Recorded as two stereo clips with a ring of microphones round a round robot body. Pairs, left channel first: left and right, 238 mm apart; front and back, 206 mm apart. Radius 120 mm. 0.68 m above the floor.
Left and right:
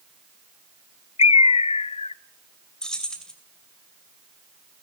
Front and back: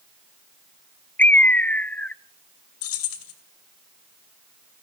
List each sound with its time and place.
1.2 s a bird: 70° left, 0.5 m
2.8 s keys jangling: 5° left, 2.5 m